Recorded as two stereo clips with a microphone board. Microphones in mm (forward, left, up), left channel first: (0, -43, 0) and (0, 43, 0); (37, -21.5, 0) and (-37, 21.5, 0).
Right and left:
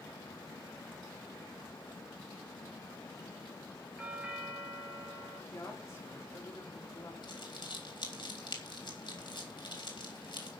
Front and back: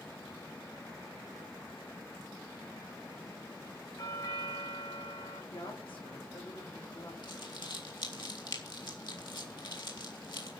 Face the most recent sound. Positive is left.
turn(degrees=-60)